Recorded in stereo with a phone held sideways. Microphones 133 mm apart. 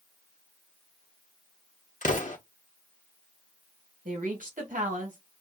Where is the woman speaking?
80° right, 1.5 m.